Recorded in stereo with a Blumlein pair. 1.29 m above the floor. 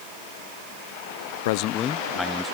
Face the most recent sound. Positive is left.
turn(degrees=0)